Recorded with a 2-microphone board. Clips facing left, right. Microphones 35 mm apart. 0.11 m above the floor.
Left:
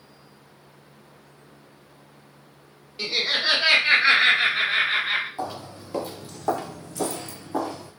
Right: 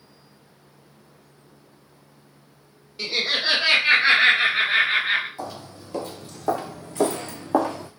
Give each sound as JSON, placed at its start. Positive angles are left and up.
{"t": 3.0, "sound": "laughter", "side_deg": 15, "distance_m": 1.7}
{"t": 5.4, "sound": "footsteps", "side_deg": 30, "distance_m": 0.9}